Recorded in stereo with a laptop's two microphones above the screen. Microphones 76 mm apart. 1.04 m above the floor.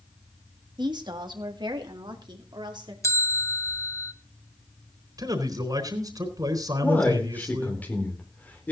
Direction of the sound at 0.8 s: 70° right (ahead or behind).